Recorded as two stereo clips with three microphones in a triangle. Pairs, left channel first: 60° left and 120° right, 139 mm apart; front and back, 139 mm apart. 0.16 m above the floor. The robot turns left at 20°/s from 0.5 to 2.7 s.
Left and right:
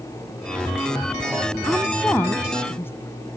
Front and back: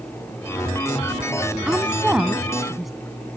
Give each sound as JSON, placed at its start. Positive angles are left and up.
{"t": 1.7, "sound": "a woman speaking", "azimuth_deg": 115}